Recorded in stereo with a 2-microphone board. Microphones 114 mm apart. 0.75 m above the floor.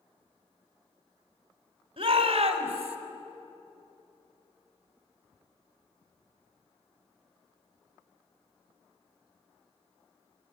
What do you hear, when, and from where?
2.0 s a shout: 50° right (ahead or behind), 3.5 m; by 3.0 s 65° right (ahead or behind), 4.5 m